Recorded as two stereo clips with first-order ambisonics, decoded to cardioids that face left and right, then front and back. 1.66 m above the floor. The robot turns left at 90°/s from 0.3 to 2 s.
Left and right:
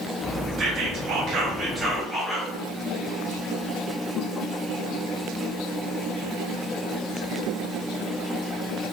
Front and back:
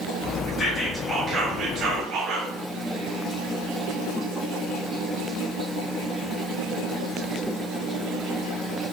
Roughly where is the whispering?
Ahead right.